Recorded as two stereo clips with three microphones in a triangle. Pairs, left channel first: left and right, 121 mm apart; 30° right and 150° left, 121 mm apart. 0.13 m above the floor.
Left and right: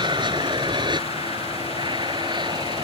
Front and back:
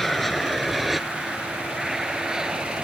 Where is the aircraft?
115° right; by 2.8 s 125° right.